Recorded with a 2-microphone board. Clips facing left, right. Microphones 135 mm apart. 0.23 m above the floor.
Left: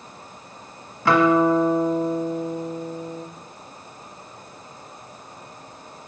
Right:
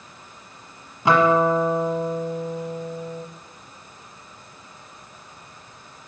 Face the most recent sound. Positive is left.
turn(degrees=-20)  # may be behind; listen again after turning